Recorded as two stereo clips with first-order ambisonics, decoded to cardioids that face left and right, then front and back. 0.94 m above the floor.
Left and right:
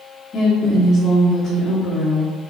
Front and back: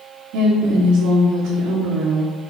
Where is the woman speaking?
150° left, 1.8 m.